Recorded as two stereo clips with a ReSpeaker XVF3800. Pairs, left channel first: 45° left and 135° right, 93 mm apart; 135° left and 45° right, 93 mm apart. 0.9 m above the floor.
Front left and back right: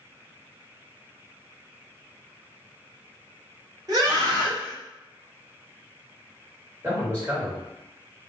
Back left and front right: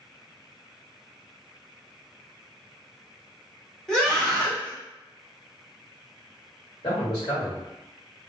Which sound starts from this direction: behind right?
A scream, at 3.9 s.